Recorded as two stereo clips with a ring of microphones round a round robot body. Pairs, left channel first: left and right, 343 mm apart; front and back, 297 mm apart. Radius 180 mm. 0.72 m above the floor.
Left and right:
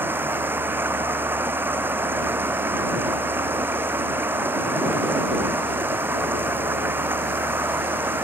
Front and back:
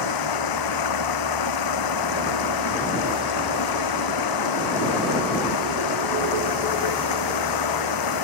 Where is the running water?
5° right.